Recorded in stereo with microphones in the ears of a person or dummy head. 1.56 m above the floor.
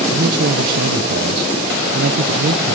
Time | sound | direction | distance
0.1 | a man speaking | 60° right (ahead or behind) | 1.1 m